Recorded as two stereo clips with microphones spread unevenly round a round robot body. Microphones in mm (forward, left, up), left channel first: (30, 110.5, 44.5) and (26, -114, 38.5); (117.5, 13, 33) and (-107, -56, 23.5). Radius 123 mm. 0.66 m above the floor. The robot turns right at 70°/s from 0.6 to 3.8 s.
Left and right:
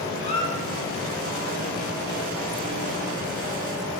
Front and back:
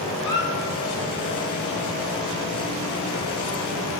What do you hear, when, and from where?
0.2 s a squeak: 75° left, 0.6 m